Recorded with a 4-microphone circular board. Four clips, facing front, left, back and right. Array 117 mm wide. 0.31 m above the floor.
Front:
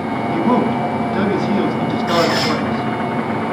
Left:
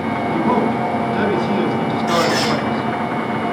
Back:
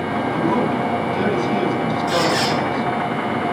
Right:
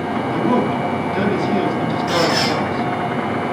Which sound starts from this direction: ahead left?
A man speaking, at 0.3 s.